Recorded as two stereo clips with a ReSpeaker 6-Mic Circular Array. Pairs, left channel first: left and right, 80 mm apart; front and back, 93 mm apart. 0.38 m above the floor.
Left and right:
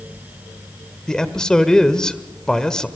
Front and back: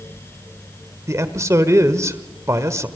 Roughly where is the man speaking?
Behind.